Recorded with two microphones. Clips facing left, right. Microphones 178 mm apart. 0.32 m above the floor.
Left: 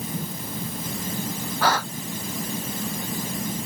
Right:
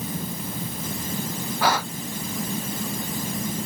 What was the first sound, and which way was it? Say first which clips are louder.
A gasp: even; 10° right (ahead or behind).